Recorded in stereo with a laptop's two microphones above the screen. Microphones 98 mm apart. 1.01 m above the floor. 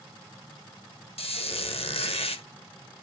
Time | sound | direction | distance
1.2 | a squeak | 85° left | 0.5 m